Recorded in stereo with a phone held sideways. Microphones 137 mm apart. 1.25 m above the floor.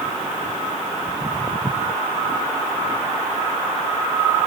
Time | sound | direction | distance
1.1 | footsteps | 20° right (ahead or behind) | ?